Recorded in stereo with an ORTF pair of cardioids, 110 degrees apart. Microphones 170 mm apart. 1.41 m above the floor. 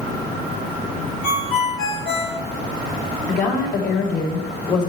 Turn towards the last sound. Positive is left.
turn(degrees=65)